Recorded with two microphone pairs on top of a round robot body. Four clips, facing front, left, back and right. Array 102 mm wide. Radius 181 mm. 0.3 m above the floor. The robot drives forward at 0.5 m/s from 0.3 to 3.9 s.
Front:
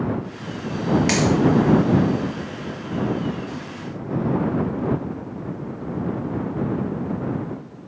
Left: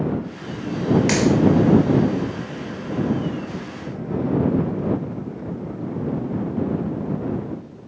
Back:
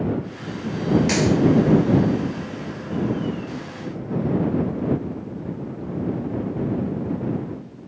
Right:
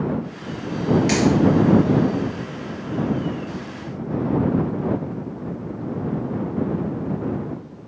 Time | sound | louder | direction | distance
1.1 | a dropped coin | even, even | 40° left | 1.6 m